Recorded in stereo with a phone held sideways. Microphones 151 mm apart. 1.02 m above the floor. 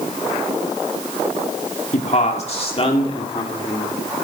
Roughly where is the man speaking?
Left.